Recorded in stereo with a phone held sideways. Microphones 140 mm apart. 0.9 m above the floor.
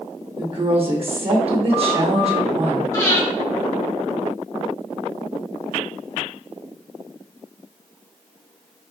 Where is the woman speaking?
45° right (ahead or behind), 1.2 m.